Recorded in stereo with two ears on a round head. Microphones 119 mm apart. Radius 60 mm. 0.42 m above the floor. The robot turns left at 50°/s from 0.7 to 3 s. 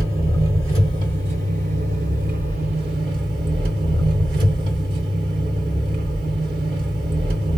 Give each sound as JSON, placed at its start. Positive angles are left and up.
{"t": 0.0, "sound": "an engine running", "azimuth_deg": -25, "distance_m": 2.5}